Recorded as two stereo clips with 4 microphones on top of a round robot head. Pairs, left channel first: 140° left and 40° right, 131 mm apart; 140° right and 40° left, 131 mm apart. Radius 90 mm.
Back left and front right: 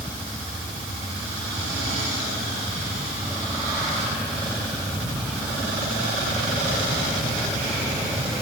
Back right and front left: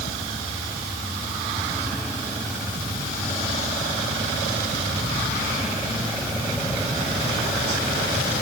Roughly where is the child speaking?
I don't hear a child speaking.